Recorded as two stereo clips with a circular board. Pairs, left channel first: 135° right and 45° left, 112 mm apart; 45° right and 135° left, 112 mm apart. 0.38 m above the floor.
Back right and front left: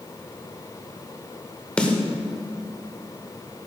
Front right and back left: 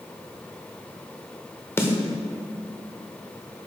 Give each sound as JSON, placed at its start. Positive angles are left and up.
{"t": 1.8, "sound": "a snare drum", "azimuth_deg": -70, "distance_m": 1.1}